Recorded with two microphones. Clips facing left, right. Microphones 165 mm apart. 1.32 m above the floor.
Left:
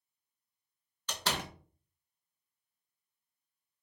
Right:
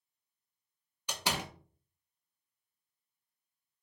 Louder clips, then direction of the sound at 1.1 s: Even; 10° right (ahead or behind).